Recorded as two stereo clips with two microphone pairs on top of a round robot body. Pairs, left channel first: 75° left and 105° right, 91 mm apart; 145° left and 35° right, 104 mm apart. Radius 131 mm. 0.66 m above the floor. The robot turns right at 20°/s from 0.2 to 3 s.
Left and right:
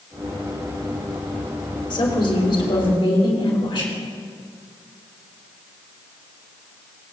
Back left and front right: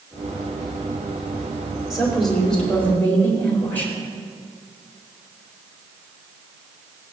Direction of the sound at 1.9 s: 45° left.